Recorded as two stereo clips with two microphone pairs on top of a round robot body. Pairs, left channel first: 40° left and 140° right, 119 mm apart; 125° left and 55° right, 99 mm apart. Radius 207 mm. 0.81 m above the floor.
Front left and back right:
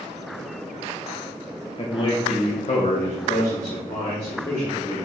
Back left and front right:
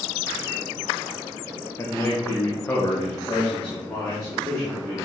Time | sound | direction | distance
1.8 | a man speaking | 75° left | 1.1 m